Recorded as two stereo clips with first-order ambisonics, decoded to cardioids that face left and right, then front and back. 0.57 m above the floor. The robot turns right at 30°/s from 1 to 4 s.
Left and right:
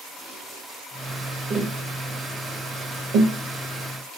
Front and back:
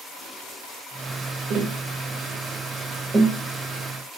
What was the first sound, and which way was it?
Tapping, 155° right.